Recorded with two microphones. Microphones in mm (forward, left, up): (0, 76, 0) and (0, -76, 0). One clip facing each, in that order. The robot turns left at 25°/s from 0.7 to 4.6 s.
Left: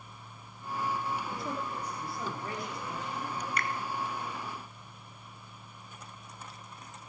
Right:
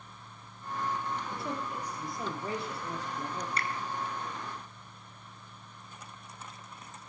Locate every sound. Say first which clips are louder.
1.3 s a man speaking: even; straight ahead, 2.5 m; by 3.5 s 55° right, 2.5 m
3.6 s a finger snap: left 2 dB; 30° right (ahead or behind), 1.3 m